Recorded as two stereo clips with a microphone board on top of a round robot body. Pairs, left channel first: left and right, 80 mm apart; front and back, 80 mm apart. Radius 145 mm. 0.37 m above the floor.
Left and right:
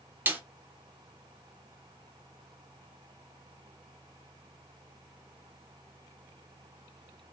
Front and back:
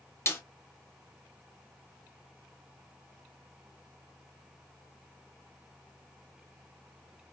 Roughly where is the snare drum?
Ahead right.